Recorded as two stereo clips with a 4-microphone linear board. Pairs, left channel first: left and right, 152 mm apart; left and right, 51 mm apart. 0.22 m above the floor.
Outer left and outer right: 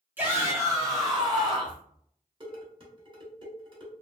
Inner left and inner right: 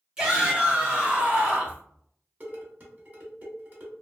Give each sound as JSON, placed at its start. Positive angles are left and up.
{"t": 0.2, "sound": "a shout", "side_deg": -10, "distance_m": 1.1}
{"t": 2.4, "sound": "dishes clattering", "side_deg": -35, "distance_m": 1.2}